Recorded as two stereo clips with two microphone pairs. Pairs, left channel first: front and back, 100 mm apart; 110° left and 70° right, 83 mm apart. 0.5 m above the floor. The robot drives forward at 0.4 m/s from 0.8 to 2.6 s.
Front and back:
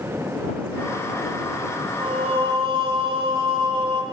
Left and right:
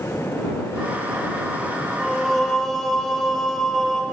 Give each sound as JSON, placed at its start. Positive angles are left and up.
{"t": 2.0, "sound": "singing", "azimuth_deg": -165, "distance_m": 0.8}